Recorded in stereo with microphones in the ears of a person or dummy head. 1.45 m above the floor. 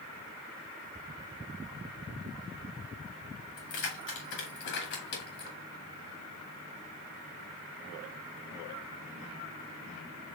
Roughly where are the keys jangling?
Left.